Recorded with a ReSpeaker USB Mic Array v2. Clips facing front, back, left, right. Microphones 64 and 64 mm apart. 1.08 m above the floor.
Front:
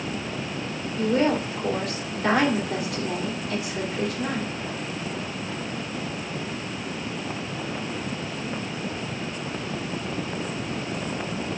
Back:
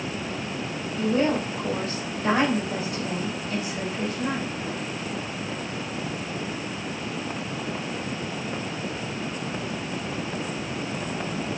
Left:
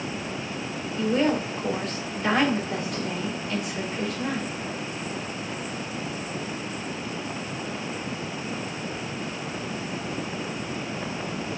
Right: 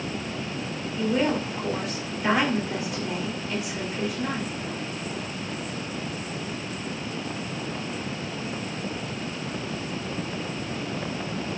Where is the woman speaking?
5° right, 3.5 m.